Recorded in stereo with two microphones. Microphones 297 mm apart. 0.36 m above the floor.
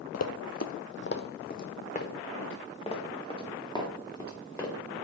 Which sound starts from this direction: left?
Running footsteps, at 0.1 s.